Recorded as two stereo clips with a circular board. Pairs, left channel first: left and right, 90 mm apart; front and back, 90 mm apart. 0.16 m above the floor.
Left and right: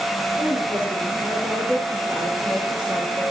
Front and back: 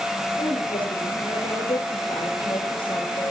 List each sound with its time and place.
0.4 s a woman speaking: 15° right, 9.5 m